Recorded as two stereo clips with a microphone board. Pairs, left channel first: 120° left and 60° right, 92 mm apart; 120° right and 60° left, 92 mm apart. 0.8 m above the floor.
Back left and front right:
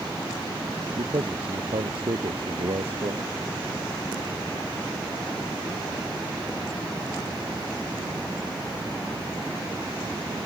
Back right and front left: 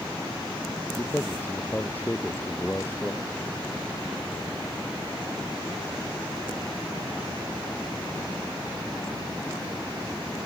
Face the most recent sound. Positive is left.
turn(degrees=-50)